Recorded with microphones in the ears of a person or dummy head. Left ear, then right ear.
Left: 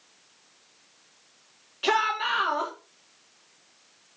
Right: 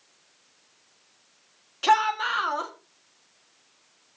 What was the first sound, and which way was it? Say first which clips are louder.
A shout: right 3 dB; 45° right (ahead or behind).